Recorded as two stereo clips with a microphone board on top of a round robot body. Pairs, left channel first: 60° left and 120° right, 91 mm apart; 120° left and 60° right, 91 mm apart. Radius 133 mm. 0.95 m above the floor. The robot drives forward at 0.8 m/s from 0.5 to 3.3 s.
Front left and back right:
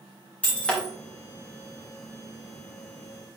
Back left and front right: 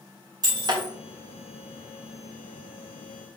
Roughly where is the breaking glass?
Ahead.